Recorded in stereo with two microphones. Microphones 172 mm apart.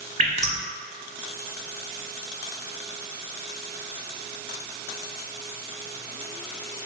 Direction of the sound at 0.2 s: 40° right (ahead or behind).